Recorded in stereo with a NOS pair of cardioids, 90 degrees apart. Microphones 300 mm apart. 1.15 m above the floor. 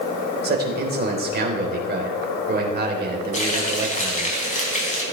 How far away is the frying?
About 4.5 m.